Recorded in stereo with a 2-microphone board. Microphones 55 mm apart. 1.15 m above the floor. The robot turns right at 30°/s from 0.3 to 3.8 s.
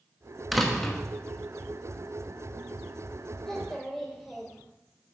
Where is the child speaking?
10° left (ahead or behind), 3 m; by 4.6 s centre (ahead or behind), 3 m.